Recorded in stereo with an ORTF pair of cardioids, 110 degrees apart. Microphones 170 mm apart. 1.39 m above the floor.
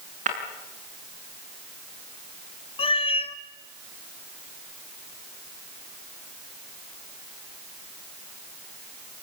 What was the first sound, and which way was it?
Breaking glass, 50° right.